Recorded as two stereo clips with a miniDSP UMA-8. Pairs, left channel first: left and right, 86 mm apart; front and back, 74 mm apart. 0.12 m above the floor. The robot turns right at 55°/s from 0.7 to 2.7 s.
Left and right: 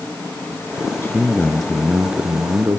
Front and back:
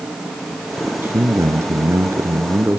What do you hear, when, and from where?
1.0 s a man speaking: 140° left, 1.8 m; by 2.8 s 125° right, 1.8 m